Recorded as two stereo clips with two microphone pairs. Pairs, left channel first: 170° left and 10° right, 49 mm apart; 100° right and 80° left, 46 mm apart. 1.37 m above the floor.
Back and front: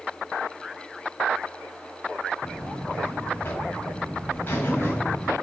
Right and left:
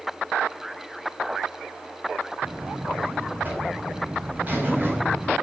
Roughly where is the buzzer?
Behind left.